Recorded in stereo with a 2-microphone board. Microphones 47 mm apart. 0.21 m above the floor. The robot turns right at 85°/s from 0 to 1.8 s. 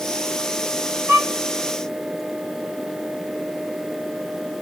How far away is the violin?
About 2.5 m.